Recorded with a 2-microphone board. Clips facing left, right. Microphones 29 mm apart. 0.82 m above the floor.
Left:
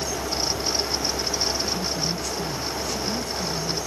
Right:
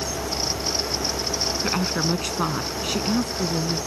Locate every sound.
1.6 s a woman speaking: 55° right (ahead or behind); by 3.8 s 60° right (ahead or behind)